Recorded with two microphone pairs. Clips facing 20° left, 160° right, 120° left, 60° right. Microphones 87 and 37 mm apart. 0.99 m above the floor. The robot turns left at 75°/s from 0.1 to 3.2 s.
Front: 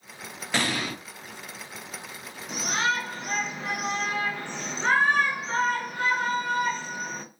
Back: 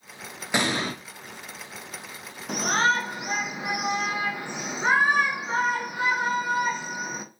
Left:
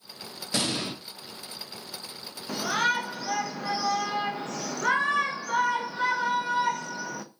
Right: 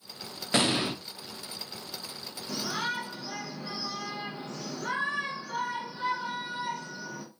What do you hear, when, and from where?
0.5 s an explosion: 90° right, 0.5 m; by 1.0 s 125° right, 0.5 m
2.5 s a shout: 175° left, 0.6 m; by 7.2 s 120° left, 0.6 m